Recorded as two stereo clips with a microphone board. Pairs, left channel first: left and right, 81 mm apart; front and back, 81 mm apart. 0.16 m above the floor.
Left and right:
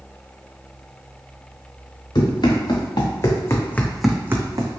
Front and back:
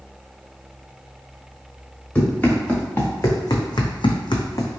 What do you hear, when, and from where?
2.1 s running footsteps: 70° left, 1.4 m; by 4.8 s 50° right, 0.7 m